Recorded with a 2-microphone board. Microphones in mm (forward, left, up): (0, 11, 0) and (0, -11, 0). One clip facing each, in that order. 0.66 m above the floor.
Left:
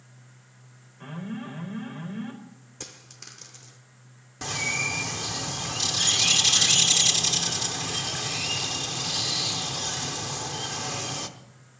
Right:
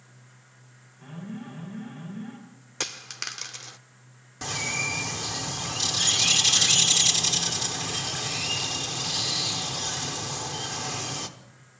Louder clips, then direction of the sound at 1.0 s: Left 3 dB; 65° left (ahead or behind).